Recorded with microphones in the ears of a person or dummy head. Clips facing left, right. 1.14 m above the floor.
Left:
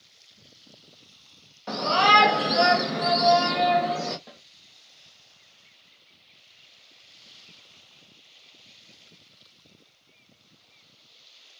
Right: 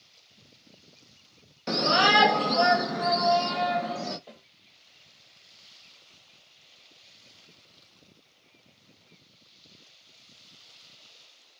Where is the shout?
25° right (ahead or behind), 0.6 m; by 4.2 s 70° left (ahead or behind), 1.1 m.